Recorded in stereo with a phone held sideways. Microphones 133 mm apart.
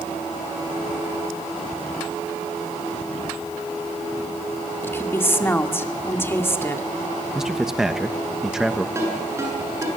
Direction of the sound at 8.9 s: 20° right (ahead or behind).